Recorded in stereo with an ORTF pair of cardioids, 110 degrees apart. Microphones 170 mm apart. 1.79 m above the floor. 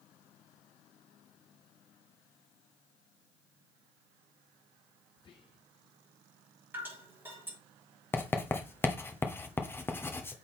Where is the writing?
15° left, 1.2 m.